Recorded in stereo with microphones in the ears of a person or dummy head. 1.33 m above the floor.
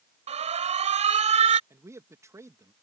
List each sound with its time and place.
0.3 s an alarm: 30° right (ahead or behind)
1.7 s a man speaking: 10° right (ahead or behind)